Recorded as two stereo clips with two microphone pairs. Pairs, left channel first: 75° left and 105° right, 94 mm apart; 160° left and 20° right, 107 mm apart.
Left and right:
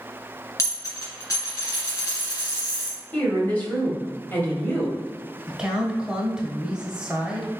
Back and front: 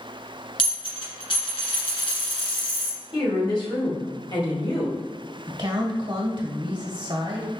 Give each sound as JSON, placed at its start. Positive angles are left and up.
{"t": 0.6, "sound": "a dropped coin", "azimuth_deg": 130, "distance_m": 1.9}
{"t": 3.1, "sound": "a woman speaking", "azimuth_deg": 140, "distance_m": 1.9}
{"t": 5.5, "sound": "a woman speaking", "azimuth_deg": -30, "distance_m": 1.2}